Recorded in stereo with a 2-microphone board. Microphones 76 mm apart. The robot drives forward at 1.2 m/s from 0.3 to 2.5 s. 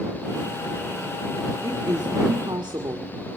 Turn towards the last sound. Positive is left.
turn(degrees=-70)  # may be behind; listen again after turning